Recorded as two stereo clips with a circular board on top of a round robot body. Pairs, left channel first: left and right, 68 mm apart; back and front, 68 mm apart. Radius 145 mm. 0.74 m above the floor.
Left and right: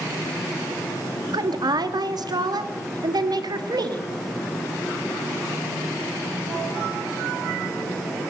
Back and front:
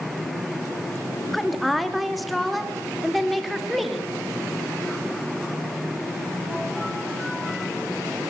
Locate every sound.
1.3 s a woman speaking: 90° right, 1.6 m